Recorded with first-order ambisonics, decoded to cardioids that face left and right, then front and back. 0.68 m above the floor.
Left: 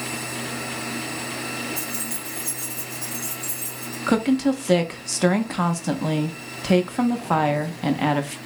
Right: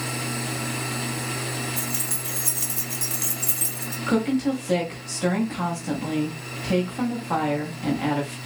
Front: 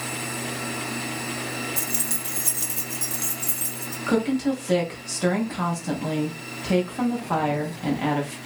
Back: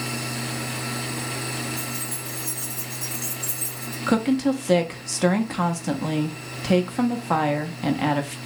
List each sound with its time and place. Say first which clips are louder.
1.8 s keys jangling: right 1 dB, front 2 dB; 5° right, 0.6 m; by 4.0 s 70° right, 1.4 m
4.1 s a woman speaking: left 3 dB, back 1 dB; 125° left, 0.6 m